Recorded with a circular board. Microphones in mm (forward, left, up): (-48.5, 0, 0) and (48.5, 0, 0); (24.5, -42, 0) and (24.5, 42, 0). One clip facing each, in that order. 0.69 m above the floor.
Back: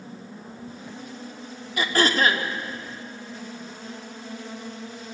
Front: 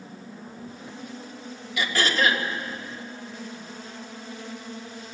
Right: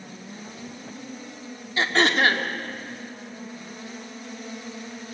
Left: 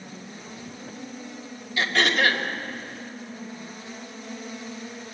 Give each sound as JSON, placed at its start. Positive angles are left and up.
{"t": 1.8, "sound": "throat clearing", "azimuth_deg": -140, "distance_m": 1.8}